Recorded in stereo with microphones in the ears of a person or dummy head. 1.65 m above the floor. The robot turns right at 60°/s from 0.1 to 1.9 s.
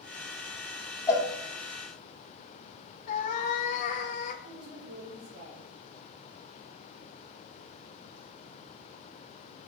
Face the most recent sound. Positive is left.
turn(degrees=-70)  # may be behind; listen again after turning